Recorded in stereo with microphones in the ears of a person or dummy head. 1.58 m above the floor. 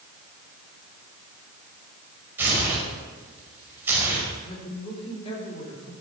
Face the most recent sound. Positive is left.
turn(degrees=30)  # may be behind; listen again after turning